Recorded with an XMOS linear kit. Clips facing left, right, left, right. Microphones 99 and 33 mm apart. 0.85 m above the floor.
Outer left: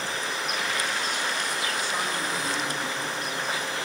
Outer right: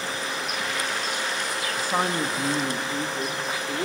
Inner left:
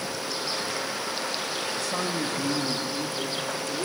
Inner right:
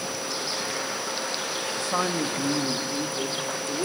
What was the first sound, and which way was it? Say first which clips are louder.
A man speaking: outer right 4 dB, inner right 5 dB; 40° right (ahead or behind).